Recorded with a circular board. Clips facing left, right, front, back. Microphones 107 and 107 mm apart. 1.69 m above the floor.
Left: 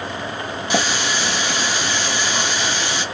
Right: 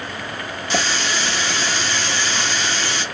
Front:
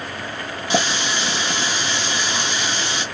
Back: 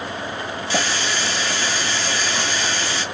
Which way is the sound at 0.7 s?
35° left.